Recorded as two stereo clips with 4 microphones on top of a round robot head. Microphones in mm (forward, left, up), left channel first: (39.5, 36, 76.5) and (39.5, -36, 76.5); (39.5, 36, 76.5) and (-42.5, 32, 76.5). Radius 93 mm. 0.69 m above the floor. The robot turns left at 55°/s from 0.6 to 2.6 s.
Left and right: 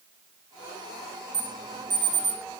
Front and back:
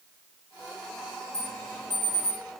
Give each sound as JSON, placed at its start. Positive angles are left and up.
{"t": 1.3, "sound": "an alarm", "azimuth_deg": -50, "distance_m": 6.0}